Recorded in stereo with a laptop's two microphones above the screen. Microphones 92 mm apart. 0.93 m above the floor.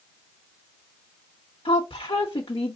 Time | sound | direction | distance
1.6 | a woman speaking | 70° left (ahead or behind) | 0.9 m